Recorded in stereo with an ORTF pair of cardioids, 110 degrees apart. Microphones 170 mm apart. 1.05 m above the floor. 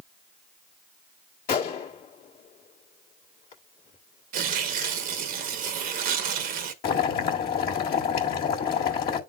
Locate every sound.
1.5 s a gunshot: 60° left, 1.5 m
4.3 s tearing paper: 60° right, 1.0 m
6.8 s boiling: 60° left, 1.7 m